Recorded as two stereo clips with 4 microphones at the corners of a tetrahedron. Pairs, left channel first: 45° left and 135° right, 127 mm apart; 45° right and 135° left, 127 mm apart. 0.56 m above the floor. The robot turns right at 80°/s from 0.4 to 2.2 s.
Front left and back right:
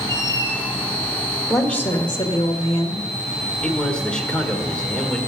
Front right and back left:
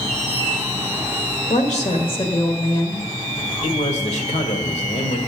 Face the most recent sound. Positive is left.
turn(degrees=-35)